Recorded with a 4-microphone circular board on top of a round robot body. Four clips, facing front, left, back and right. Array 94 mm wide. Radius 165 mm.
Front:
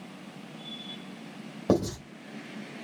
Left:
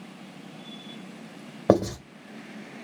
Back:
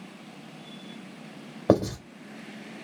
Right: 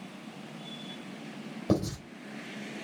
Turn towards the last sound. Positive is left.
turn(degrees=115)